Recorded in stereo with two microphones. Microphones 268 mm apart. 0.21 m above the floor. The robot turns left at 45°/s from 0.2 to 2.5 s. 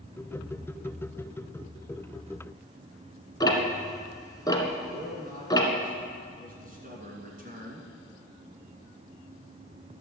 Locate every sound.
3.4 s ticking: 15° left (ahead or behind), 1.3 m
4.9 s a man speaking: 35° right (ahead or behind), 2.5 m